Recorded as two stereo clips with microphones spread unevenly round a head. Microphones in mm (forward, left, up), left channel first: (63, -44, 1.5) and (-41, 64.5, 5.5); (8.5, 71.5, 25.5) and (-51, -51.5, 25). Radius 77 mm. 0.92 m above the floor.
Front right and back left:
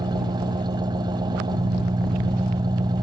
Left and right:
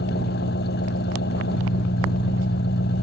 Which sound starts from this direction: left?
An engine running, at 0.0 s.